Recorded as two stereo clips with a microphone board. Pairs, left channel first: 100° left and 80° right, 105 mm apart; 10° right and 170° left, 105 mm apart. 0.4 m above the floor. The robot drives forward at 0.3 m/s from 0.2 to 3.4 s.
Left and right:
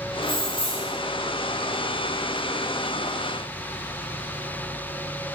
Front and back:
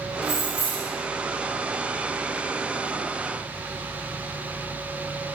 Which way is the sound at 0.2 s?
105° right.